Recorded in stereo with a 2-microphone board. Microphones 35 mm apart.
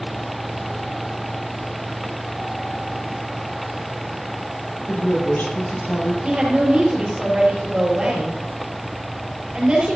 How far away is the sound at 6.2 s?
About 5.5 m.